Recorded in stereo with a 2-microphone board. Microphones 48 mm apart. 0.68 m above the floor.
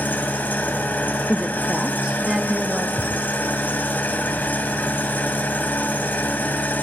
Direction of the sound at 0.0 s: 40° left (ahead or behind).